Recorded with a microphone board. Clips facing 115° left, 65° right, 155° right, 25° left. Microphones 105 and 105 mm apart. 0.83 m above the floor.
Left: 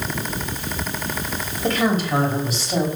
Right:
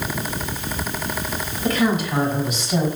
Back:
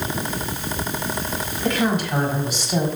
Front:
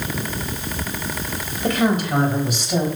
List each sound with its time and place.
1.6 s a woman speaking: 60° left, 4 m; by 2.9 s 55° left, 4.5 m